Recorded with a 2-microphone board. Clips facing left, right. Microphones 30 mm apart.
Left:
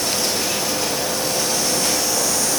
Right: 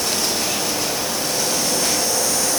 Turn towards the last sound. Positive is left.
No sound to turn to.